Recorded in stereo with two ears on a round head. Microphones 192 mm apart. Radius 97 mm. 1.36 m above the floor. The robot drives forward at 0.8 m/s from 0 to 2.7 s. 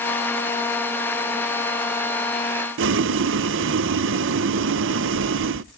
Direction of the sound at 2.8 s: 60° right (ahead or behind).